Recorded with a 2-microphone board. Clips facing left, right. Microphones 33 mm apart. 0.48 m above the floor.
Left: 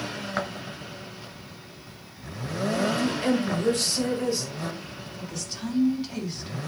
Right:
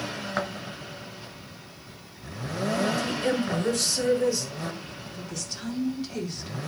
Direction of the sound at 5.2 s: 10° left (ahead or behind).